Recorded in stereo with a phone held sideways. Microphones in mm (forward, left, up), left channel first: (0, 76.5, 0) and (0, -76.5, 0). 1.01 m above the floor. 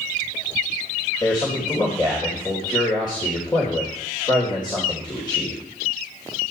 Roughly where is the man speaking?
Left.